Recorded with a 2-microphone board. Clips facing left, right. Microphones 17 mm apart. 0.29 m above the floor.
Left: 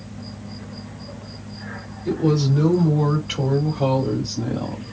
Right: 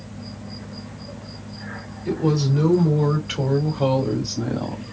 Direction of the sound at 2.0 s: 5° right (ahead or behind).